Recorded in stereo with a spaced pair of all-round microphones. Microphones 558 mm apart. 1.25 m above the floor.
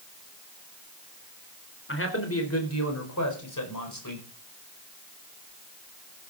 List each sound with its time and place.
1.9 s a man speaking: 20° left (ahead or behind), 4 m; by 4.2 s 35° left (ahead or behind), 5 m